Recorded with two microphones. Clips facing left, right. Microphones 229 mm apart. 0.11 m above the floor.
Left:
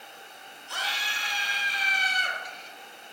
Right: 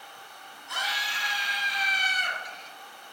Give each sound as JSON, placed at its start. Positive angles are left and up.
{"t": 0.7, "sound": "a scream", "side_deg": 35, "distance_m": 3.0}